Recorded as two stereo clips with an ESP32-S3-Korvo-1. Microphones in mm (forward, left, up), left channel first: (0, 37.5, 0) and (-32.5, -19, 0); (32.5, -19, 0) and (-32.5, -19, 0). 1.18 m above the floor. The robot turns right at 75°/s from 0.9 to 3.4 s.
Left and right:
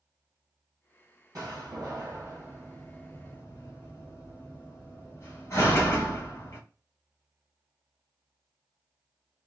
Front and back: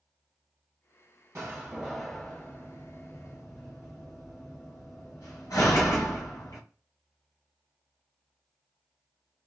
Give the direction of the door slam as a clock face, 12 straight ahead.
5 o'clock.